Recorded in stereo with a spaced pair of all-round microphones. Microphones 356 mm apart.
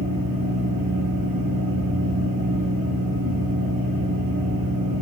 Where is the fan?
70° right (ahead or behind), 3 m.